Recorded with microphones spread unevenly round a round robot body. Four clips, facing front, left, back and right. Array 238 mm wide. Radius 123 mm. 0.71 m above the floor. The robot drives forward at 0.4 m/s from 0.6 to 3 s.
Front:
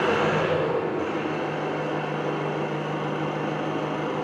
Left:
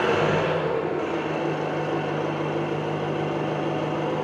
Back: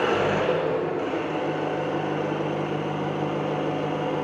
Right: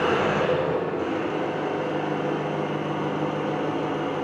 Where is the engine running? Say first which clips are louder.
Even, even; 90° left, 1.8 m; by 4.2 s 120° left, 2.0 m.